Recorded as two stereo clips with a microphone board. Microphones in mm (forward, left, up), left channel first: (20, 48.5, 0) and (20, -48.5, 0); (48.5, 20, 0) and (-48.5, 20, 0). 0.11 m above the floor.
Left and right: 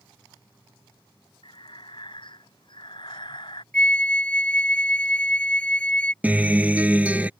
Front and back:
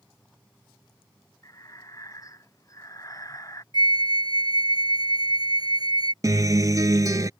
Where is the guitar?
155° right.